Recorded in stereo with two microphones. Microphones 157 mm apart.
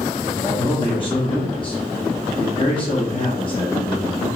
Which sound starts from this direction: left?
A man speaking, at 0.4 s.